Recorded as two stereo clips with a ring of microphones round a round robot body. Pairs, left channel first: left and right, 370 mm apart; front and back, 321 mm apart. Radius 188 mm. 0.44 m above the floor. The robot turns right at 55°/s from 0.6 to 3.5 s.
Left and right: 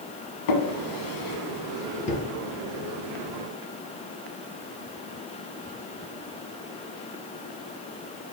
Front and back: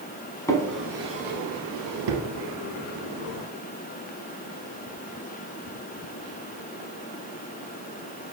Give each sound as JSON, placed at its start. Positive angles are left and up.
{"t": 0.5, "sound": "a drawer", "azimuth_deg": 80, "distance_m": 1.0}